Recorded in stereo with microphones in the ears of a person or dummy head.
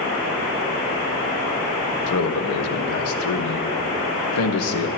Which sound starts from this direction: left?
A man speaking, at 2.1 s.